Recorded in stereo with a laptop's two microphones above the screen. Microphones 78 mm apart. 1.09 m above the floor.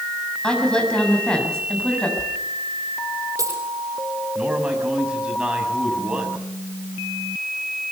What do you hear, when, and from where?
0.4 s a woman speaking: 10° left (ahead or behind), 7.5 m
2.2 s a dropped coin: 40° right (ahead or behind), 6 m
4.3 s a man speaking: 10° right (ahead or behind), 6.5 m